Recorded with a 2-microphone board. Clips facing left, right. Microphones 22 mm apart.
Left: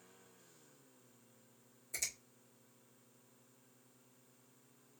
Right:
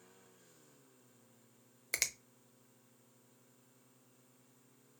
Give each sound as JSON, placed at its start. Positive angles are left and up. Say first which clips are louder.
{"t": 1.9, "sound": "a finger snap", "louder": "right 6 dB", "side_deg": -70, "distance_m": 0.6}